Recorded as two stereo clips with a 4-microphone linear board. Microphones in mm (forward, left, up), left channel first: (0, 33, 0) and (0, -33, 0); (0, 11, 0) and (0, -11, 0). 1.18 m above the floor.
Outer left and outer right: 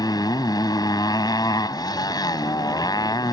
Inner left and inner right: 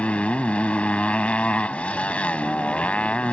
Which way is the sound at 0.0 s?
70° left (ahead or behind).